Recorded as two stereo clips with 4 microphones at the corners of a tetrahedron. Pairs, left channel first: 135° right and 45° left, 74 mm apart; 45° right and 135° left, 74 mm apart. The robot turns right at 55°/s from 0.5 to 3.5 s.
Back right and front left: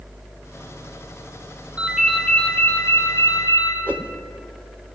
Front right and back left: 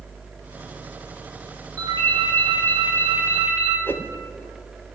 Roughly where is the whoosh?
Ahead.